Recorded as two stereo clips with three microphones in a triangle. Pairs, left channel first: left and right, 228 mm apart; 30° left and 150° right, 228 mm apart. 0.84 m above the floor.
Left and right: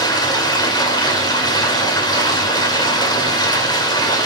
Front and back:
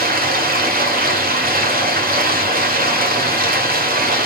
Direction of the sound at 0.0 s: 165° left.